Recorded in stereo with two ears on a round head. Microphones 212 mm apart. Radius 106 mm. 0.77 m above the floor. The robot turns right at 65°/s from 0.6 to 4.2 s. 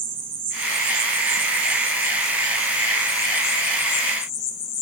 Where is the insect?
145° right, 0.9 m; by 4.8 s 90° left, 0.9 m.